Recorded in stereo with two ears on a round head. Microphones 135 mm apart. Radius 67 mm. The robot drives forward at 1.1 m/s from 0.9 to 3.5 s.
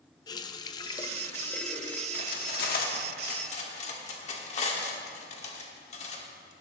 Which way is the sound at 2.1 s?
60° left (ahead or behind).